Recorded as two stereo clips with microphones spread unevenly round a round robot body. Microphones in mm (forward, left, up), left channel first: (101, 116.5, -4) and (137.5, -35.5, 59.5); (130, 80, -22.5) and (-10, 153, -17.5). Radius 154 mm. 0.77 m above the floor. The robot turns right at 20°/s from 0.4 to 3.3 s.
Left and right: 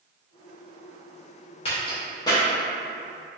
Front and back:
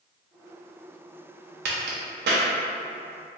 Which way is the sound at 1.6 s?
150° left.